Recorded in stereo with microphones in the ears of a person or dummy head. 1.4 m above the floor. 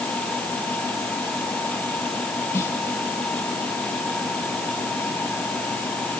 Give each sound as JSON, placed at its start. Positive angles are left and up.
{"t": 2.5, "sound": "a snare drum", "side_deg": 20}